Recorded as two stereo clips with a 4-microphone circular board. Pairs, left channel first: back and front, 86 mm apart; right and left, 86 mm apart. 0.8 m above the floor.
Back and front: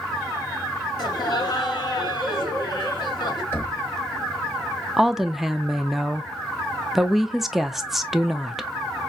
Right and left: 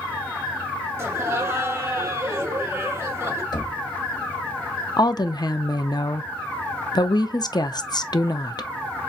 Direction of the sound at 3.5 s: 120° right.